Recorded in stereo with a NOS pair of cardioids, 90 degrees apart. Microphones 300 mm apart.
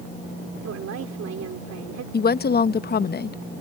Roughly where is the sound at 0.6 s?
Ahead right.